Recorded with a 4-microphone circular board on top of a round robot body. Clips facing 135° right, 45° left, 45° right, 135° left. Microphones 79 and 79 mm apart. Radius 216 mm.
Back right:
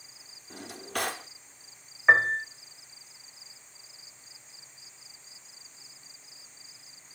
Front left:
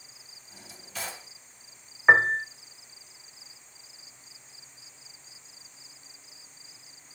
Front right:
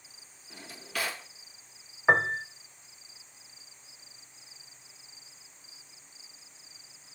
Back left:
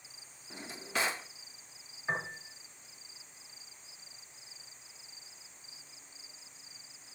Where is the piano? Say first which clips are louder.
Front left 2 dB, front right 13 dB; 25° right, 0.5 m.